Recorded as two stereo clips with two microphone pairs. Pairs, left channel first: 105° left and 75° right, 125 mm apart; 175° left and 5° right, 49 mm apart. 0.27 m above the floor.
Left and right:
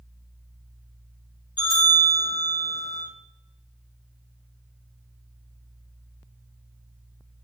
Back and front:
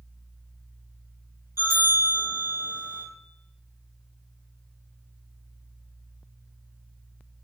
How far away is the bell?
About 5 m.